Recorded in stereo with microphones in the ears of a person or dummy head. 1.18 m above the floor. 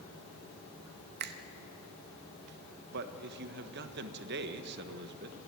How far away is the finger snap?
About 0.9 m.